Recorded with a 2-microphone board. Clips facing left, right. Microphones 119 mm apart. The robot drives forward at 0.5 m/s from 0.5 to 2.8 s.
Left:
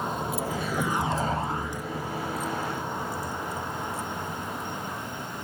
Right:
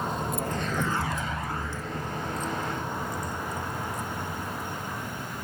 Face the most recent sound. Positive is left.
turn(degrees=5)  # may be behind; listen again after turning